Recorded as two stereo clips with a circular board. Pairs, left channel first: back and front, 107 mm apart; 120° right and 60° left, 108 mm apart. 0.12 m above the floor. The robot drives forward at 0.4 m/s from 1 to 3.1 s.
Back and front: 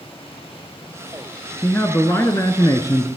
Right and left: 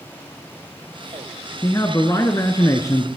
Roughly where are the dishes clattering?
I don't hear dishes clattering.